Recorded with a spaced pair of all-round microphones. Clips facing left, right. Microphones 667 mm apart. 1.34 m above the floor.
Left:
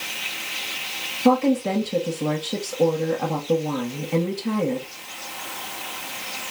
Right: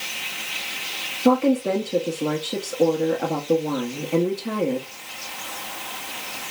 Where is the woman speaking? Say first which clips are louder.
Even; 30° left (ahead or behind), 1.0 m.